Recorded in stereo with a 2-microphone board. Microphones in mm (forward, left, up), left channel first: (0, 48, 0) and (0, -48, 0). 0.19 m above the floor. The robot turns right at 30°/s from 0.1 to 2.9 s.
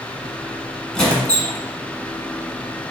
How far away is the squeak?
About 1.1 m.